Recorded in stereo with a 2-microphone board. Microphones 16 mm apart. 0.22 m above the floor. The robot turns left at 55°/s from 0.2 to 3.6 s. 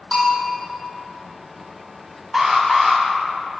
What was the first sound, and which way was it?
A bell, 15° left (ahead or behind).